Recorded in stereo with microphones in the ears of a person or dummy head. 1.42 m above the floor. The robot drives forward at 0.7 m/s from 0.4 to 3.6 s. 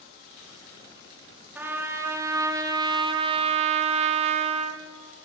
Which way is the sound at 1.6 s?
10° right (ahead or behind).